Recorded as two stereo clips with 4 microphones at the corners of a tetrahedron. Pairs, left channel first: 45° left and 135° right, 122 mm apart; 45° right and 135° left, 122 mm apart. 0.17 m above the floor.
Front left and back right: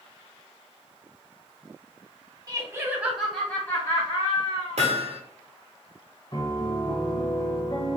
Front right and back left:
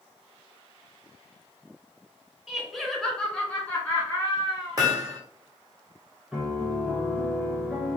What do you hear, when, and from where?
2.5 s laughter: 145° right, 1.4 m; by 4.8 s 20° left, 1.9 m
4.8 s hammering: 165° right, 1.4 m
6.3 s a piano: 60° left, 1.4 m